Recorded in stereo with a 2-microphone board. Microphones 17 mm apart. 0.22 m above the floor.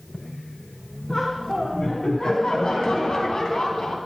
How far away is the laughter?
About 2.5 m.